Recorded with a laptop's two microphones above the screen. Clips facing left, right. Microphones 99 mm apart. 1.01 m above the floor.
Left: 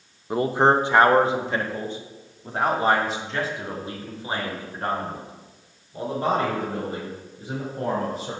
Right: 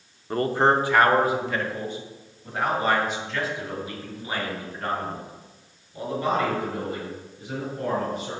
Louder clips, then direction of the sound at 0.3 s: Left 2 dB; 10° left (ahead or behind).